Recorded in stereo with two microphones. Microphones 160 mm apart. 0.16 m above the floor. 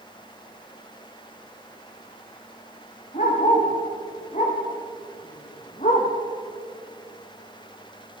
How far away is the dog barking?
About 8 m.